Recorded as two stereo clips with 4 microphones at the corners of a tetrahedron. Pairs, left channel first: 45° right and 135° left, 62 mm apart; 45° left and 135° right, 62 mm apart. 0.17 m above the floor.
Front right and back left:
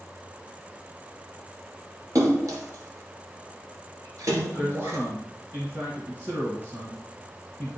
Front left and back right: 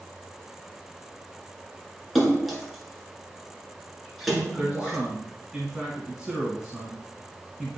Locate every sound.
2.1 s a splash: 135° left, 1.7 m
4.6 s a man speaking: 155° left, 1.9 m